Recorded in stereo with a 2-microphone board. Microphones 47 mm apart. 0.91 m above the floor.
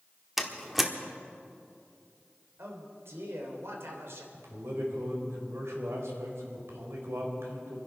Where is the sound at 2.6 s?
70° right (ahead or behind), 3 m.